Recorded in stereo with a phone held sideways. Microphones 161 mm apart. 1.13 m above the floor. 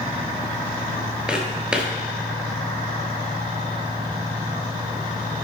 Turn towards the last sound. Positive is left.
turn(degrees=-5)  # may be behind; listen again after turning